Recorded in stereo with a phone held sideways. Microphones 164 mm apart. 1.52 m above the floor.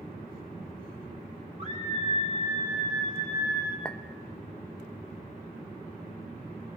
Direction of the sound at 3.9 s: 5° left (ahead or behind).